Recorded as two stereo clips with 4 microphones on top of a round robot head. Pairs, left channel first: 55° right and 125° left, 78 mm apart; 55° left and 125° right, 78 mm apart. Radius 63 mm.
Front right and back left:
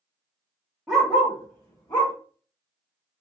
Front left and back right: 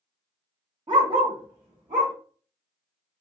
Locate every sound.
0.9 s a dog barking: 145° right, 1.2 m; by 2.1 s 105° right, 1.3 m